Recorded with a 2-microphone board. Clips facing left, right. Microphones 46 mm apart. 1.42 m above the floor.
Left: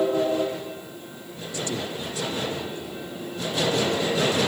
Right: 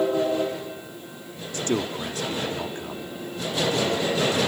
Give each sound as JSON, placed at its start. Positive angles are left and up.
{"t": 1.5, "sound": "a man speaking", "side_deg": -50}